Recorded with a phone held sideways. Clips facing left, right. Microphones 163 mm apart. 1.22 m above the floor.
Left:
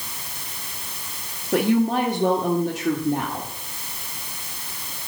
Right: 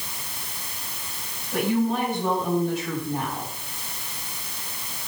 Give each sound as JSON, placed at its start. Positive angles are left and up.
{"t": 1.5, "sound": "a woman speaking", "side_deg": 85, "distance_m": 2.0}